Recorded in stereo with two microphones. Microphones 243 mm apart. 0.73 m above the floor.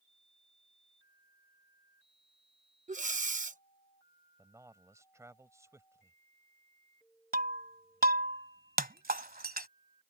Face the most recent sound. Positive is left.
turn(degrees=-40)  # may be behind; listen again after turning